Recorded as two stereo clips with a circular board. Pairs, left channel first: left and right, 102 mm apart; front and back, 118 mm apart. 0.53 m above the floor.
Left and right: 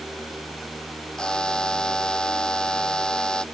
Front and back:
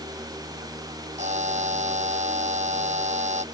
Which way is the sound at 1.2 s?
175° left.